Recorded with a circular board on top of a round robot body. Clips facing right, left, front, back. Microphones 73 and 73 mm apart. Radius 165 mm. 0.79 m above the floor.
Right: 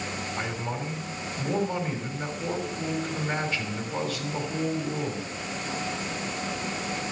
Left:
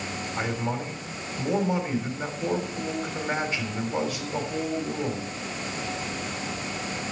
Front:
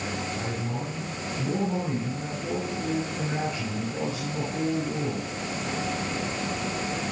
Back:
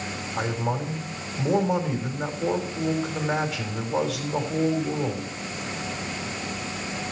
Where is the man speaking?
165° left, 3.5 m.